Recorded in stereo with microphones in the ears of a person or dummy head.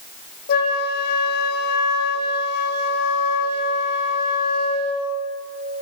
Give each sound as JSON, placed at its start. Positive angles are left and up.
{"t": 0.5, "sound": "a flute", "side_deg": 50, "distance_m": 0.7}